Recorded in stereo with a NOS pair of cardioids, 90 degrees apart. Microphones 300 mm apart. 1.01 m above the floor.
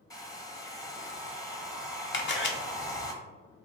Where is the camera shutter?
40° left, 0.8 m.